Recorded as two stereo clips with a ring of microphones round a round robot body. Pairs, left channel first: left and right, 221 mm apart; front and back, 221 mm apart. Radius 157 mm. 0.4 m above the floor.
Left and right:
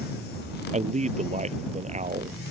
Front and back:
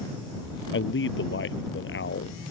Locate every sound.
0.7 s a man speaking: 30° right